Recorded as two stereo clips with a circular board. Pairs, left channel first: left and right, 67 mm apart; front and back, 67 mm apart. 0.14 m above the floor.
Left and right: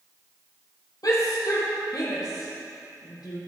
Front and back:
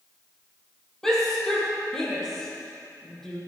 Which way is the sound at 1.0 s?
80° left.